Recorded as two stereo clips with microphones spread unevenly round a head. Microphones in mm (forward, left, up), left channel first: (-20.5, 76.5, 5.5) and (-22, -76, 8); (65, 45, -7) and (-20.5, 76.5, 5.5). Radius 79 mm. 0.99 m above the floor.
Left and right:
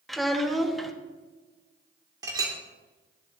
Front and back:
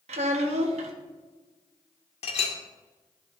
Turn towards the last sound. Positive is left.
turn(degrees=-20)